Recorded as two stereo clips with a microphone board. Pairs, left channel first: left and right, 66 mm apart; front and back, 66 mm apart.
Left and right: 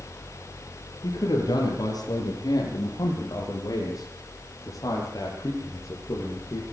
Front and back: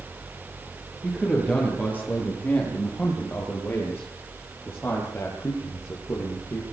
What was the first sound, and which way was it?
A man speaking, 70° left.